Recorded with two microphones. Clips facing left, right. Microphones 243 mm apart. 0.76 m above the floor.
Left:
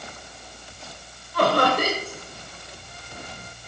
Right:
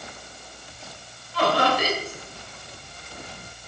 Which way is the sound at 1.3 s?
50° left (ahead or behind).